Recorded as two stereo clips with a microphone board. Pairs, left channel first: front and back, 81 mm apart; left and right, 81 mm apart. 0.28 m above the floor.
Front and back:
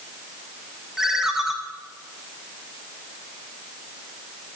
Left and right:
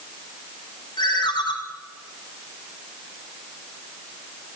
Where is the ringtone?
95° left, 1.2 m.